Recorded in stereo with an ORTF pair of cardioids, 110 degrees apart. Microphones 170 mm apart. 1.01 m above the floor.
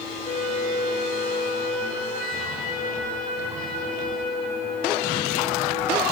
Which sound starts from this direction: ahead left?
A flute, at 0.2 s.